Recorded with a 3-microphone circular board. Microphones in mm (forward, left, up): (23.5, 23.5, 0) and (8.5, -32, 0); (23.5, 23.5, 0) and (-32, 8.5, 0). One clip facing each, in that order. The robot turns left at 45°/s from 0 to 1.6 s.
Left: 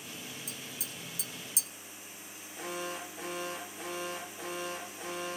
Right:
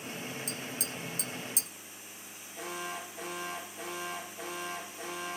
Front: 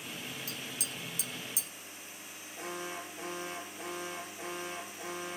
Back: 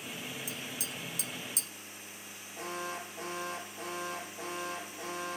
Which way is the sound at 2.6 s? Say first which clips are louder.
Even, back 2 dB; 165° left.